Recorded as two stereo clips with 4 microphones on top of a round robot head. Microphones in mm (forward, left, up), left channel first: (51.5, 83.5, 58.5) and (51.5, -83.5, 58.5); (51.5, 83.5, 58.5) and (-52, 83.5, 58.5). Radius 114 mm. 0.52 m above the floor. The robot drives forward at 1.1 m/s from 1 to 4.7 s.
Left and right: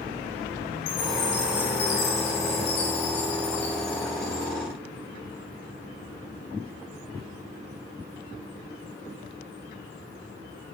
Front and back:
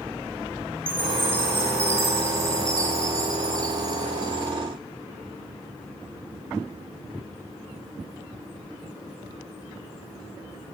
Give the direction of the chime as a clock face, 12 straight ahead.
8 o'clock.